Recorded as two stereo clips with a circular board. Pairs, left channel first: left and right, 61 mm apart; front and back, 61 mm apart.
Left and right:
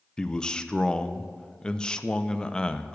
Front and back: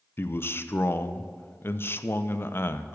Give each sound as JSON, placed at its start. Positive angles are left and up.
{"t": 0.2, "sound": "a man speaking", "azimuth_deg": 20, "distance_m": 0.5}